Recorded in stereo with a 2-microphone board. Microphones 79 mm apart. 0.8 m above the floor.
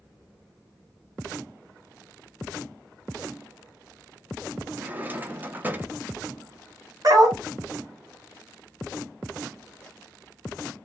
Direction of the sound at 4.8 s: 25° right (ahead or behind).